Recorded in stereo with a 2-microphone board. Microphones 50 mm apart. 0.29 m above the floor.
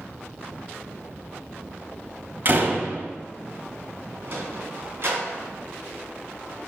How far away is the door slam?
About 0.9 m.